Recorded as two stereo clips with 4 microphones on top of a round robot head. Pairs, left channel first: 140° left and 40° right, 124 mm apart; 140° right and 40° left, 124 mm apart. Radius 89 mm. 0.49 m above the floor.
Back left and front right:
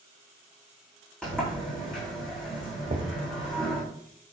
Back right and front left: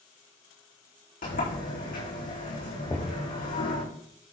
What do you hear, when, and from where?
1.2 s a sliding door: 135° right, 8 m
2.9 s knocking: 70° right, 1.9 m